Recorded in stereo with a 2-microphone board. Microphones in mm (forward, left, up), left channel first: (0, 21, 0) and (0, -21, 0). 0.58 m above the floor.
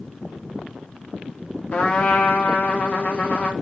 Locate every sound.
1.7 s a trumpet: 35° left (ahead or behind), 0.6 m